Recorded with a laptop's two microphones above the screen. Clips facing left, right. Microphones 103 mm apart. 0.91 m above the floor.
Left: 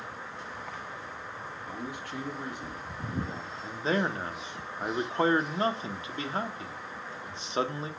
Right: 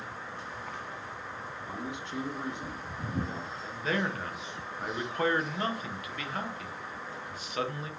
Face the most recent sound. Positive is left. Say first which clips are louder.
# left 3 dB
turn(degrees=30)  # may be behind; listen again after turning